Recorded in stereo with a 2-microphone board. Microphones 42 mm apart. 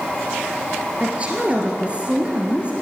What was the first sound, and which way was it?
A woman speaking, 30° right (ahead or behind).